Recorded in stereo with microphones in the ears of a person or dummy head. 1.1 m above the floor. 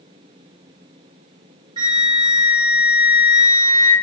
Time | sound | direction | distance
1.8 | a flute | 25° right (ahead or behind) | 1.4 m